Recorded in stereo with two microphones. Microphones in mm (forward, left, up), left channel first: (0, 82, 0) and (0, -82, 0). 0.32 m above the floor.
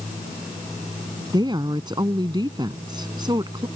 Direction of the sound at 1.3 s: 25° right (ahead or behind).